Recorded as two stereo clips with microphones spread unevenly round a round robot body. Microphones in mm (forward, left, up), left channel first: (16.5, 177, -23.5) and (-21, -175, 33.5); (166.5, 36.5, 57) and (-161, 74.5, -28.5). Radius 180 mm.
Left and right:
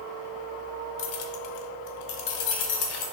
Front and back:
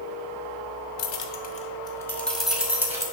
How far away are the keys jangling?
About 0.9 m.